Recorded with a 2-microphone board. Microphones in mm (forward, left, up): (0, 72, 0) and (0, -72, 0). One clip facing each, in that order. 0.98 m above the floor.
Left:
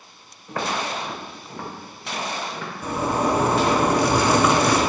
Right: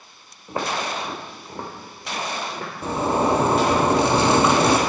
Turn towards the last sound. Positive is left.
turn(degrees=-25)  # may be behind; listen again after turning